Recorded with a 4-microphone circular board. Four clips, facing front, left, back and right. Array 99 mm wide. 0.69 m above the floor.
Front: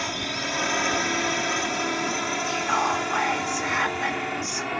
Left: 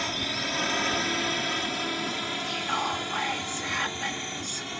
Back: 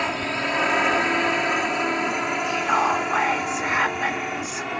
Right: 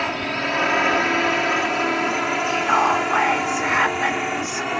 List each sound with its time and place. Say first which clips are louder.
0.0 s a drone: right 8 dB, back 5 dB; 125° right; by 4.8 s 90° right
2.4 s whispering: right 12 dB, back 3 dB; 110° right